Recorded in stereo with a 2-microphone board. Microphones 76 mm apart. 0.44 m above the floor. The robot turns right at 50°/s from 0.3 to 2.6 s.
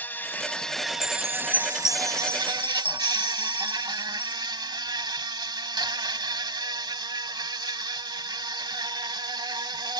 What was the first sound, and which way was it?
An insect, 155° left.